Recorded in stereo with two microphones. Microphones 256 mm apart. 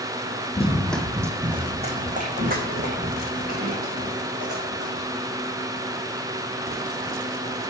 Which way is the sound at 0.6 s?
25° left (ahead or behind).